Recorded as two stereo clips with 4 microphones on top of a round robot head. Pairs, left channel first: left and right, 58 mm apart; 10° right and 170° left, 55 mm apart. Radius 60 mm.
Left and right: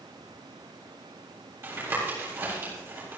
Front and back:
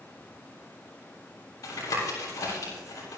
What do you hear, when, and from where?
1.6 s tapping: 35° right, 7.5 m